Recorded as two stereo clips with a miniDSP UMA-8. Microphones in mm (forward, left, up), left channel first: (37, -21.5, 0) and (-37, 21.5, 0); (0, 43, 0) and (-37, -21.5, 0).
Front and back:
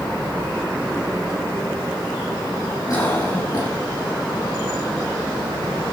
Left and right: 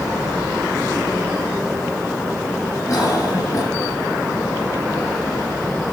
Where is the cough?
15° left, 6 m.